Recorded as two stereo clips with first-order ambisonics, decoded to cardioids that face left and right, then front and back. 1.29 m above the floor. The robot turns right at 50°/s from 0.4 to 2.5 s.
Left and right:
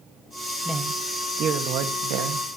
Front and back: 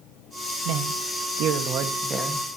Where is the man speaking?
Straight behind, 1.7 m; by 2.5 s 90° right, 1.7 m.